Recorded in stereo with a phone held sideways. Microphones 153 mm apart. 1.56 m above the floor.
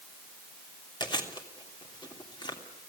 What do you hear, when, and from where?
1.0 s chewing: 30° left (ahead or behind), 3 m